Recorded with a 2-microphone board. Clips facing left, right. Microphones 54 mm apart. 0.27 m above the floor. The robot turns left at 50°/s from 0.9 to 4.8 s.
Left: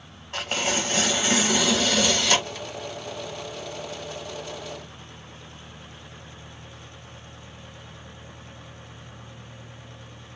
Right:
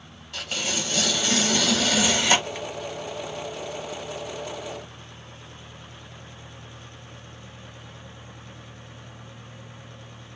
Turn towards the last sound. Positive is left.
turn(degrees=-145)